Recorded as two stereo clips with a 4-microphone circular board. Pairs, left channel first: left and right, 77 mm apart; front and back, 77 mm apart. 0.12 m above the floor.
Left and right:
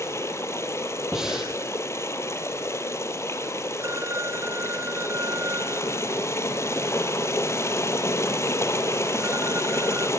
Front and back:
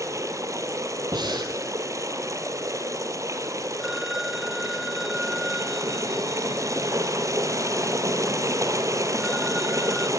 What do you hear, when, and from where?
0.0 s running water: 140° left, 2.5 m
1.1 s breathing: 175° right, 4 m
3.8 s a phone ringing: 95° right, 1.1 m